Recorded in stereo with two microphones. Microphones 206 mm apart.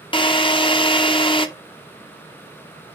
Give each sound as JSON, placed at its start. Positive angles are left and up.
{"t": 0.1, "sound": "a drill", "side_deg": 25, "distance_m": 0.8}